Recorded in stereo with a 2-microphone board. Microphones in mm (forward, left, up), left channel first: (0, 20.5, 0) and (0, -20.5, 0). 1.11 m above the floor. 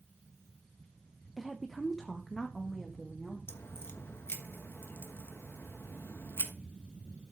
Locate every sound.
1.4 s a woman speaking: centre (ahead or behind), 0.7 m; by 3.4 s 5° left (ahead or behind), 2.0 m
3.5 s a crack: 70° left (ahead or behind), 1.3 m